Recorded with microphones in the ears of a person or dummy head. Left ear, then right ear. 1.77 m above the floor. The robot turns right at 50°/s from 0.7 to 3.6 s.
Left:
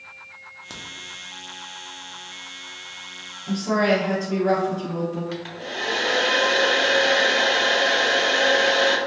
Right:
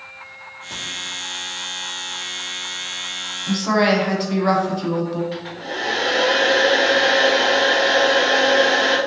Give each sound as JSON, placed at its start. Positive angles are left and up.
{"t": 0.7, "sound": "a crack", "side_deg": 50, "distance_m": 0.6}
{"t": 3.5, "sound": "a woman speaking", "side_deg": -70, "distance_m": 1.1}
{"t": 5.3, "sound": "a hair dryer", "side_deg": 25, "distance_m": 0.7}